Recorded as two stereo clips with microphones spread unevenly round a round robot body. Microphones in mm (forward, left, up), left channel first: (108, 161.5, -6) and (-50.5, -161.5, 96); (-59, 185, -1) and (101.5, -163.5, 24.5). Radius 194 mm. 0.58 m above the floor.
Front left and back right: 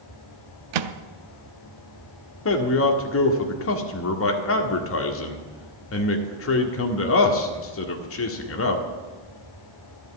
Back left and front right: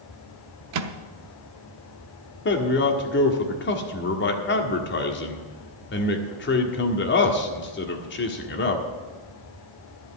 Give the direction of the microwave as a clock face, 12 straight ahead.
4 o'clock.